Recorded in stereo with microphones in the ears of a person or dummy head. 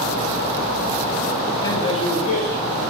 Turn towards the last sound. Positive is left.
turn(degrees=50)  # may be behind; listen again after turning